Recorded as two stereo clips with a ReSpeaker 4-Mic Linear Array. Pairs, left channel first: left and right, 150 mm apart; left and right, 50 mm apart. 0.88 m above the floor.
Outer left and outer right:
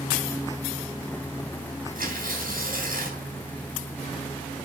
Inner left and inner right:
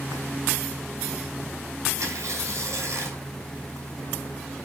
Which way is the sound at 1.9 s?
65° right (ahead or behind).